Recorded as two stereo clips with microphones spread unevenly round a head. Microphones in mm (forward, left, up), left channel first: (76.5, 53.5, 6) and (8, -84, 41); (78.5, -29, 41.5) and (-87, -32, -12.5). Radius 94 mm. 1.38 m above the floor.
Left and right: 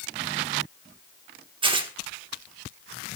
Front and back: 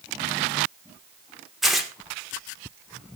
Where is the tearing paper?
80° right, 1.5 m.